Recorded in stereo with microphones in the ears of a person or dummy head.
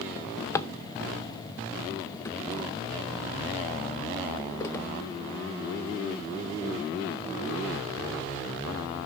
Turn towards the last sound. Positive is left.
turn(degrees=10)  # may be behind; listen again after turning